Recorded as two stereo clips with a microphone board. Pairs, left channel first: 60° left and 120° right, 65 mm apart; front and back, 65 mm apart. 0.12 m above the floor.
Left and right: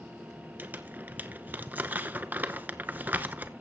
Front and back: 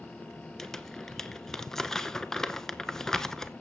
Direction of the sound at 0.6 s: 80° right.